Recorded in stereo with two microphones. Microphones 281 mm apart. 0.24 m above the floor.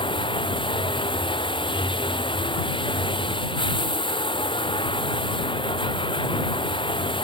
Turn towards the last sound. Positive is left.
turn(degrees=15)  # may be behind; listen again after turning